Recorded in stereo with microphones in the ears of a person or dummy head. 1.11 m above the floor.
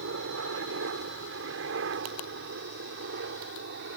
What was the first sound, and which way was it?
A helicopter, 65° right (ahead or behind).